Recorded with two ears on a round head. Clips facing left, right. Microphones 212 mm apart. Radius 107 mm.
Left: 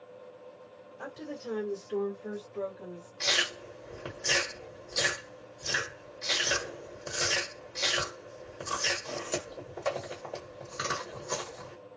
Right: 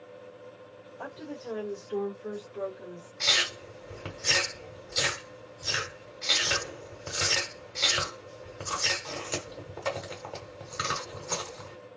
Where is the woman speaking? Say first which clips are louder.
Even; 30° left (ahead or behind), 1.9 m; by 3.1 s 20° right (ahead or behind), 2 m.